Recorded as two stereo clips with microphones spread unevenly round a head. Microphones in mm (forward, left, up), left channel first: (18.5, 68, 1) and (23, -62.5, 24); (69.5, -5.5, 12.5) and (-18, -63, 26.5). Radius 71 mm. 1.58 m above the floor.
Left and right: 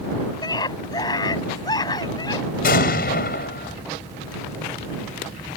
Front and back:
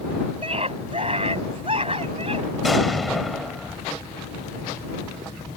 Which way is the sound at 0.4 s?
160° left.